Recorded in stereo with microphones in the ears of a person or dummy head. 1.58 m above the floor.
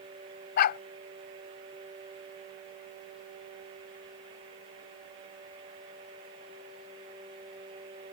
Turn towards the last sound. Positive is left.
turn(degrees=50)  # may be behind; listen again after turning